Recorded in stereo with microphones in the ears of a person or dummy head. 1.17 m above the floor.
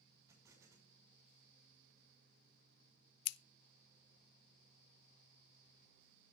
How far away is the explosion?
About 5.5 m.